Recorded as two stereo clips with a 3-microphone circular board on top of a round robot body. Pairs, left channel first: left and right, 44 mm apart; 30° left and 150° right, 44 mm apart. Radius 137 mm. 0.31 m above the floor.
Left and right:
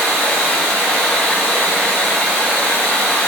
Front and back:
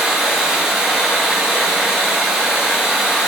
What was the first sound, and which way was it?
Running water, 135° left.